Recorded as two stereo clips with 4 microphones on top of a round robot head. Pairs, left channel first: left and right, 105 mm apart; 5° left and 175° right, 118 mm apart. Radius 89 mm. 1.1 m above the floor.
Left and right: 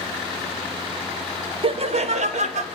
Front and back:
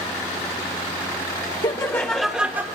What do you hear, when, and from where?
1.6 s laughter: 55° right, 1.4 m; by 2.6 s 105° right, 1.6 m